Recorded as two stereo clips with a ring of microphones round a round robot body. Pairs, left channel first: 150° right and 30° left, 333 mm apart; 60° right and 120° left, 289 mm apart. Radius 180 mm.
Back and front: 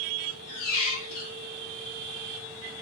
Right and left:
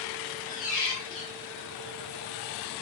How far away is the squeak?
About 1.9 m.